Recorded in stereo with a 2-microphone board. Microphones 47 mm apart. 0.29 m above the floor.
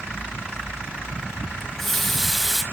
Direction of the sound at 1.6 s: 5° left (ahead or behind).